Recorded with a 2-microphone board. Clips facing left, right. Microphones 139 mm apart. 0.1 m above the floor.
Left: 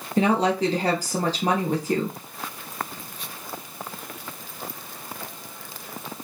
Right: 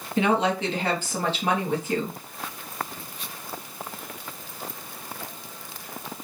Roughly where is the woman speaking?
Left.